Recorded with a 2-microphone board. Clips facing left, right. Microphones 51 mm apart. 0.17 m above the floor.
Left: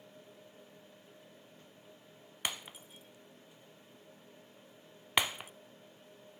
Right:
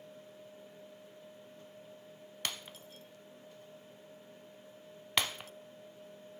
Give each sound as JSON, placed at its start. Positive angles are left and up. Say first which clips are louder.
{"t": 2.5, "sound": "breaking glass", "louder": "left 2 dB", "side_deg": 20, "distance_m": 0.6}